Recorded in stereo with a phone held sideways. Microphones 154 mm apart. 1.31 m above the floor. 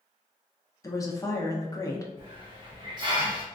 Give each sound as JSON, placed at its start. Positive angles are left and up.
{"t": 0.8, "sound": "a woman speaking", "side_deg": 25, "distance_m": 0.7}
{"t": 2.2, "sound": "a hiss", "side_deg": -30, "distance_m": 0.9}